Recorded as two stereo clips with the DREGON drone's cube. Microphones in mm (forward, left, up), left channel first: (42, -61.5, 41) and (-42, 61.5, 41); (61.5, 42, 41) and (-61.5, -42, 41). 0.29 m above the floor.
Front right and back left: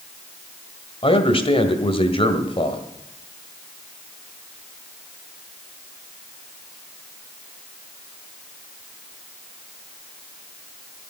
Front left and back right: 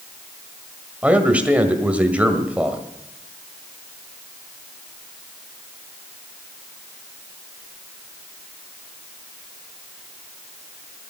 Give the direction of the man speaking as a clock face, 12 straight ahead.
2 o'clock.